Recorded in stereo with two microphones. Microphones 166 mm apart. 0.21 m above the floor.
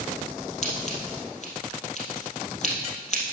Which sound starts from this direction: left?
Scissors, at 0.6 s.